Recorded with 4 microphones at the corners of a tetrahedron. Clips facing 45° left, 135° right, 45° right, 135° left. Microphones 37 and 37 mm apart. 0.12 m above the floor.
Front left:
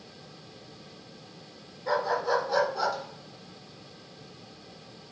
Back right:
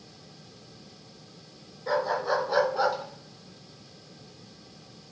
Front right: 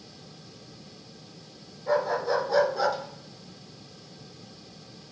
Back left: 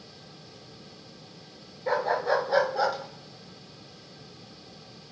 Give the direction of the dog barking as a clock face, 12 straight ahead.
8 o'clock.